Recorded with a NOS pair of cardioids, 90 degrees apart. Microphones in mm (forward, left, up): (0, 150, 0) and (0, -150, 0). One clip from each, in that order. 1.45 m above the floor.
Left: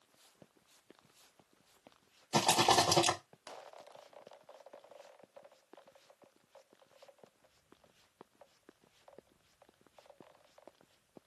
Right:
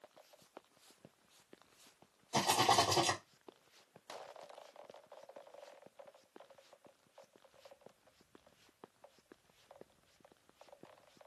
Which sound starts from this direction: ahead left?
A rattle, at 2.3 s.